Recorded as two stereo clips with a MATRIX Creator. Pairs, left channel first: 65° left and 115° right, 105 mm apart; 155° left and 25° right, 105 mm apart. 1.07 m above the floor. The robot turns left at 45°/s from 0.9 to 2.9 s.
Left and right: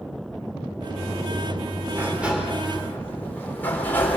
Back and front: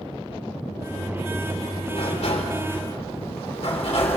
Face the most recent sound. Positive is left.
turn(degrees=140)